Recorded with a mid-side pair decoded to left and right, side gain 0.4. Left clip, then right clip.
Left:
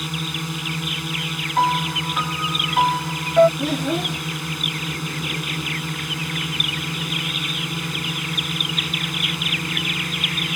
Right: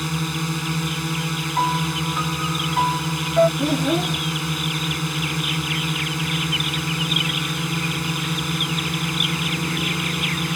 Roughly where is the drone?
Ahead right.